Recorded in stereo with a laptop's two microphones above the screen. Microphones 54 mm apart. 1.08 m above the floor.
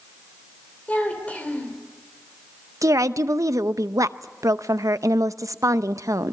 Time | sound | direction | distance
0.9 | a child speaking | 30° left (ahead or behind) | 2.5 m
2.8 | a woman speaking | 80° right | 0.7 m